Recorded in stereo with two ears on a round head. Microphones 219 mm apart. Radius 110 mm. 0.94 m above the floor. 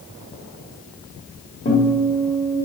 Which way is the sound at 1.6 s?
30° left (ahead or behind).